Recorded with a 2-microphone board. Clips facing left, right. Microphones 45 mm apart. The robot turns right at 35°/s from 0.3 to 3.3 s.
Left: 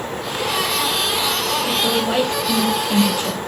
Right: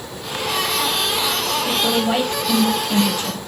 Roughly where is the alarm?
I don't hear an alarm.